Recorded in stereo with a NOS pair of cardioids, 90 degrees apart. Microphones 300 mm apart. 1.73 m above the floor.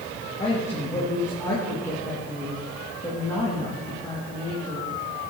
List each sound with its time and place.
0.4 s a woman speaking: 10° left, 2.5 m